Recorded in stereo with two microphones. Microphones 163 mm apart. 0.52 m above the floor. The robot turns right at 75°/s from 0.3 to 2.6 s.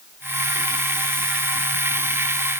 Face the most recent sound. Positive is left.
No sound to turn to.